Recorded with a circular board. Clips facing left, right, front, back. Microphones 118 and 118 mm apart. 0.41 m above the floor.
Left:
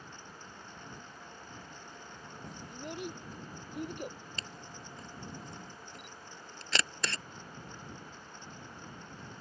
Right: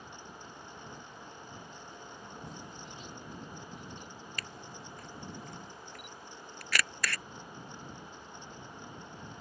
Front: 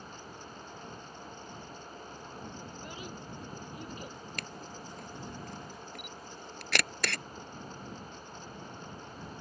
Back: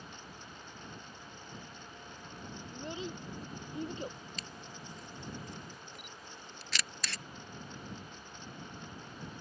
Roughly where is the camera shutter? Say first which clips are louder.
Right 1 dB, front 4 dB; ahead left.